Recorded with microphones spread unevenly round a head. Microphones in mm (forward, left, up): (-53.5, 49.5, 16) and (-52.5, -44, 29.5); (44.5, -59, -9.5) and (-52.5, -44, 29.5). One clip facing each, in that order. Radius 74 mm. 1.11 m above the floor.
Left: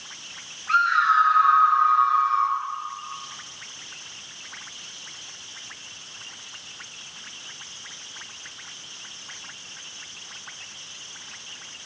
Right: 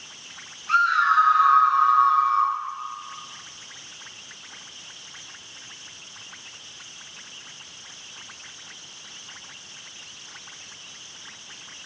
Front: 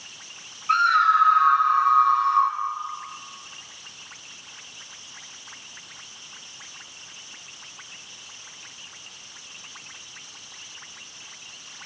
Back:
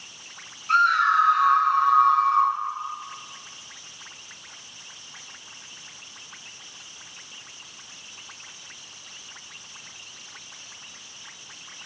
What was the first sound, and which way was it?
A scream, 35° right.